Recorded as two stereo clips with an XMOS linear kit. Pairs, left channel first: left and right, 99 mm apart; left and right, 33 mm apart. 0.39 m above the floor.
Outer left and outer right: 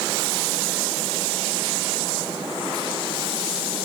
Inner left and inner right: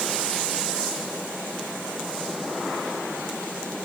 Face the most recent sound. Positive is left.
No sound to turn to.